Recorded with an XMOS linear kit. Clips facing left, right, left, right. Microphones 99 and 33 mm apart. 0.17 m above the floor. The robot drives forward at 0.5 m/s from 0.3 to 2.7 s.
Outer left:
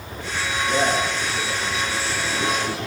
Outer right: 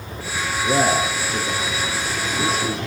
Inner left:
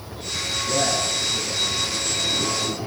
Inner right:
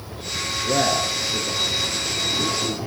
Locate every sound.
0.6 s a man speaking: 50° right (ahead or behind), 1.9 m; by 2.8 s 35° right (ahead or behind), 2.5 m